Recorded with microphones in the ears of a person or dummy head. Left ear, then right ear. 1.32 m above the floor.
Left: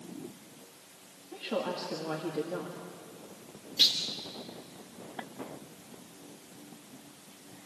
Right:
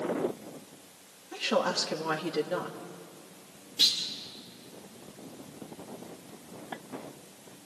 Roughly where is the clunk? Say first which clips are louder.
Even; centre.